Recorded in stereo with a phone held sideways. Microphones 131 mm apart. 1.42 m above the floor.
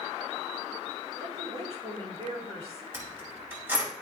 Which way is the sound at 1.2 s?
50° right (ahead or behind).